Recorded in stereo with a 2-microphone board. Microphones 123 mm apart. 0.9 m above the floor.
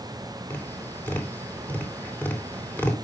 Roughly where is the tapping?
Centre.